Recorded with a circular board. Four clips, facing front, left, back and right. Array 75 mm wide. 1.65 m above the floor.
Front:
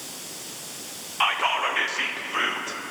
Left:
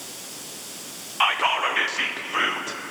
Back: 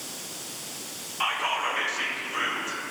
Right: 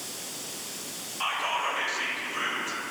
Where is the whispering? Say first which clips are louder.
Left 7 dB, front 4 dB; 65° left, 0.6 m.